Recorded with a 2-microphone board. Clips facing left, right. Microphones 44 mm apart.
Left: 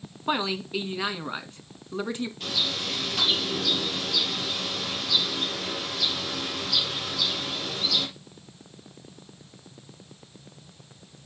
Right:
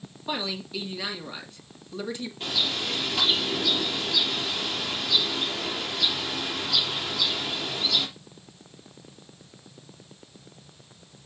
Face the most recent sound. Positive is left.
turn(degrees=-15)  # may be behind; listen again after turning